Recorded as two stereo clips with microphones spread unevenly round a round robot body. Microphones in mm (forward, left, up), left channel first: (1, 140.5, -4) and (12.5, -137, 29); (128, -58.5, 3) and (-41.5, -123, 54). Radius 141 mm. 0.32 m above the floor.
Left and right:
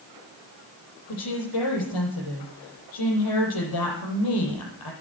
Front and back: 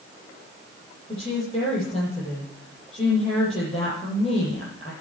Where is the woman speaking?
90° left, 9 m.